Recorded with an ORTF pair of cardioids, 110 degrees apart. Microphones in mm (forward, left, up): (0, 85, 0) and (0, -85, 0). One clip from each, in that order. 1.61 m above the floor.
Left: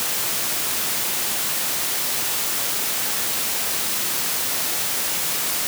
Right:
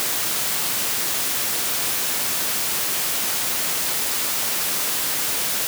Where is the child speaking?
I don't hear a child speaking.